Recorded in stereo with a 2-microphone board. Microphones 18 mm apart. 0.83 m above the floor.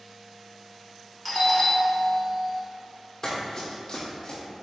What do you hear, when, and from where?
1.2 s a doorbell: centre (ahead or behind), 1.2 m
3.2 s running footsteps: 40° left (ahead or behind), 1.8 m; by 4.4 s 60° left (ahead or behind), 1.9 m